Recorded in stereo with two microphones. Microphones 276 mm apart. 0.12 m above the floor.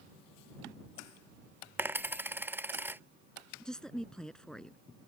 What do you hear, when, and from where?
1.8 s a dropped coin: 5° right (ahead or behind)
3.6 s a woman speaking: 5° left (ahead or behind)